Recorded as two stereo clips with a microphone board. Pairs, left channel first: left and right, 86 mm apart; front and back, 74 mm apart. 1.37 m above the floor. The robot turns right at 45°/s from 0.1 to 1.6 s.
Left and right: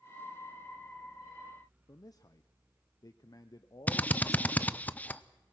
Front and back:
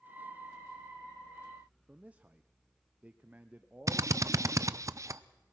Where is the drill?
155° left, 0.5 m.